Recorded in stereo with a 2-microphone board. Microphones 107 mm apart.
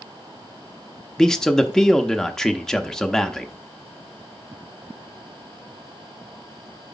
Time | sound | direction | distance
1.2 | a man speaking | 5° left (ahead or behind) | 0.7 m